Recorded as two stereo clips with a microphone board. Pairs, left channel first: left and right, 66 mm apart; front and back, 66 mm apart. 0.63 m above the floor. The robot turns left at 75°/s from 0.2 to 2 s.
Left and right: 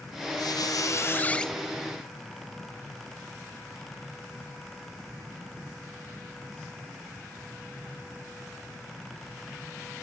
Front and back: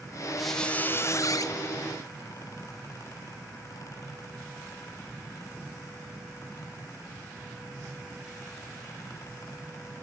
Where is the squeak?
90° left, 0.6 m; by 1.5 s 5° left, 0.6 m.